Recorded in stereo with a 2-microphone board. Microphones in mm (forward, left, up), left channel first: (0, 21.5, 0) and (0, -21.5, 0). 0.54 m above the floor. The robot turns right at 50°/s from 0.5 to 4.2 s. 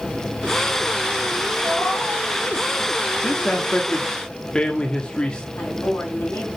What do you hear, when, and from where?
1.6 s a cat meowing: 15° left, 4 m; by 2.2 s 45° left, 4 m
3.2 s a man speaking: 25° left (ahead or behind), 1.2 m
5.5 s a woman speaking: 55° left (ahead or behind), 4.5 m